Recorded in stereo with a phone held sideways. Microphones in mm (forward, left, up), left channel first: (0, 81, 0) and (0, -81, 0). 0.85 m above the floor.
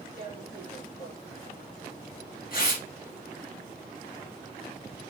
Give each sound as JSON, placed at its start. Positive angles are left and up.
{"t": 0.2, "sound": "tearing paper", "side_deg": 60, "distance_m": 1.9}